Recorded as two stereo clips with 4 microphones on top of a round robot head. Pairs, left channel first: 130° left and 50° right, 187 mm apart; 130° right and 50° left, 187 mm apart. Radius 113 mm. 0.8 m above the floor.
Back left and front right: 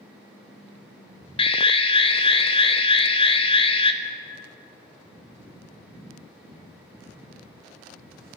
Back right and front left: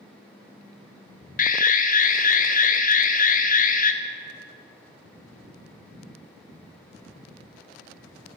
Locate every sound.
1.4 s an alarm: 170° right, 1.1 m